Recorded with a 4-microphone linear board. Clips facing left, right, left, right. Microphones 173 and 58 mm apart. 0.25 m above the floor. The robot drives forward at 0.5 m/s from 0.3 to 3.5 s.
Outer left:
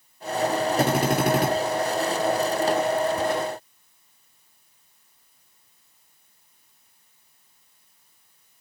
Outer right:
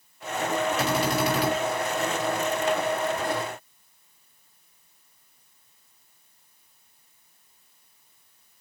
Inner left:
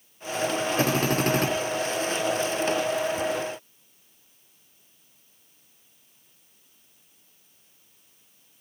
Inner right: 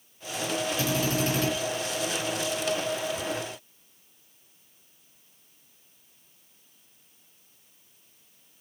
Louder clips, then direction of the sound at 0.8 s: Outer left 3 dB, inner left 5 dB; 55° left (ahead or behind).